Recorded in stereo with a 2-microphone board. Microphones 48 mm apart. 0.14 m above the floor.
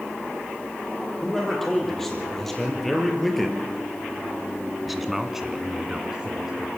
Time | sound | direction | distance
1.2 | a man speaking | 5° left (ahead or behind) | 6 m